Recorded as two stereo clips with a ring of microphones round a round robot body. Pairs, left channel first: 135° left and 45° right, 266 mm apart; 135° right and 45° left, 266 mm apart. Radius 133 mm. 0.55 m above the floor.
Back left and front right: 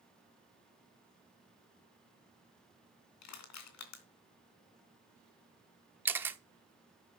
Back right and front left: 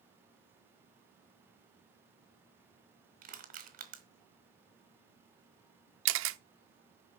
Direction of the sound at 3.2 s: 105° left.